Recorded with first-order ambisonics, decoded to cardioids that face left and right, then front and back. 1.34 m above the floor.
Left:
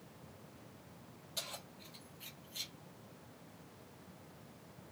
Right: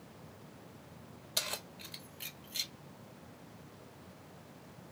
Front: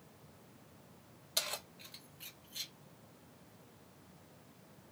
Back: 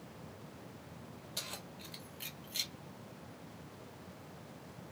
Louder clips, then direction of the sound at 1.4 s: Right 8 dB, front 6 dB; 55° right.